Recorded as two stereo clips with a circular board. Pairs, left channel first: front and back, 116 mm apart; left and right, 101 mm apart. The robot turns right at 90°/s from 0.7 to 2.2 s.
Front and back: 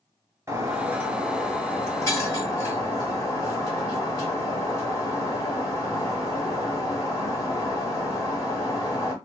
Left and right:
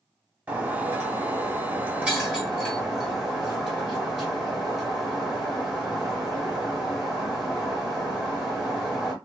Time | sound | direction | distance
0.5 | breaking glass | 150° right | 1.3 m